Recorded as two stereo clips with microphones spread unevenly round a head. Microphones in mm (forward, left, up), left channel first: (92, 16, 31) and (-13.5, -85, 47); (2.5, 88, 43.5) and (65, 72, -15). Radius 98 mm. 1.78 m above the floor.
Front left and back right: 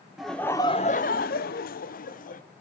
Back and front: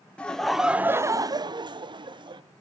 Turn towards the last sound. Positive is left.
turn(degrees=15)